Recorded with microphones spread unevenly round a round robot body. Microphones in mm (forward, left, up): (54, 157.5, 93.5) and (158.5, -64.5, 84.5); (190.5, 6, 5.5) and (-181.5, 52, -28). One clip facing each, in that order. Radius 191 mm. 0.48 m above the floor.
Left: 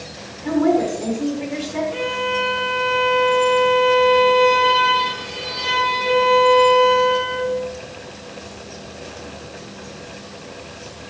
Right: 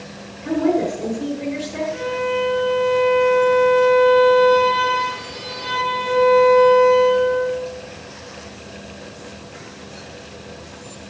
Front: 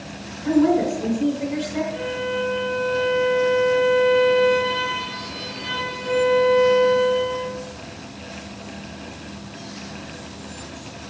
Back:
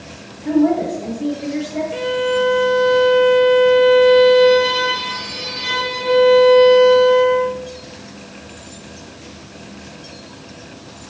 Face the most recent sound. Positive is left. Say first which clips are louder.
# right 2 dB, back 7 dB
turn(degrees=170)